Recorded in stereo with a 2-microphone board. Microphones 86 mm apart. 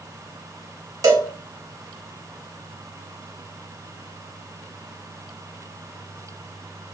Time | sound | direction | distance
1.0 | a cowbell | 45° right (ahead or behind) | 0.6 m